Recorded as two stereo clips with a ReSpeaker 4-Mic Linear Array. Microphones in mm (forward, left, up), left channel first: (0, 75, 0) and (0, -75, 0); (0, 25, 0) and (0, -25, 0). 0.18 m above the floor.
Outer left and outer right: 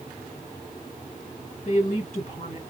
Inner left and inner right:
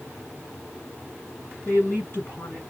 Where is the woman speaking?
55° left (ahead or behind), 2 m.